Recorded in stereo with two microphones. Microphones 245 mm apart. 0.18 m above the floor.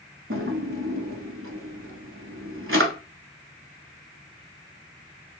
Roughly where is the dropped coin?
I don't hear a dropped coin.